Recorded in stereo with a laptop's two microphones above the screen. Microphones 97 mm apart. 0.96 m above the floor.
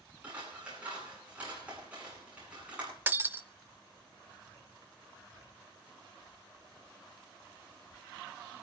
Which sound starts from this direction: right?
Breaking glass, at 3.1 s.